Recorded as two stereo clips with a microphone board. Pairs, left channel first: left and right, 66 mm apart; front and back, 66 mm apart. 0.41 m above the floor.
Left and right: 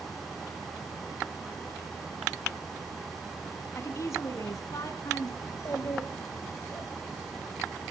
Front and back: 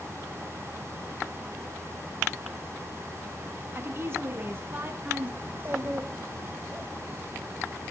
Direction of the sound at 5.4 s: 125° left.